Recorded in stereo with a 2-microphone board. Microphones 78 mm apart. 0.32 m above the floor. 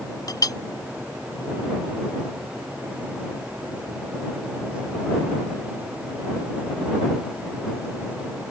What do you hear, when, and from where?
0.3 s a clink: 55° left (ahead or behind)